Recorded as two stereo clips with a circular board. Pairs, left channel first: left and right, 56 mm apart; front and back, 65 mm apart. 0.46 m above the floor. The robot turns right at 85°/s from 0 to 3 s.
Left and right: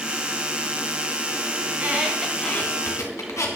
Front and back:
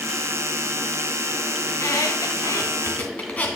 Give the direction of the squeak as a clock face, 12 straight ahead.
2 o'clock.